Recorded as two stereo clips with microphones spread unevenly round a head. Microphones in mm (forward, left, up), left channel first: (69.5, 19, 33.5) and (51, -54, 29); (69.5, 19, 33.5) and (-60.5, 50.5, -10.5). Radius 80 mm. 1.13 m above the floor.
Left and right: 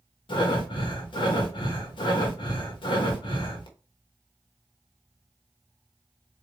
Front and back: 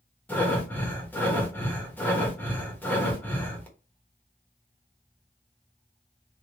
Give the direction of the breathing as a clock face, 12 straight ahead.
10 o'clock.